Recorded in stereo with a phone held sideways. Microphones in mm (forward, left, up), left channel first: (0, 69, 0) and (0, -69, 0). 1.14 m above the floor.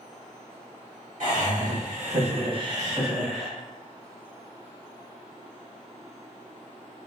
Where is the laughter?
65° right (ahead or behind), 1.4 m; by 3.5 s 5° left (ahead or behind), 0.9 m.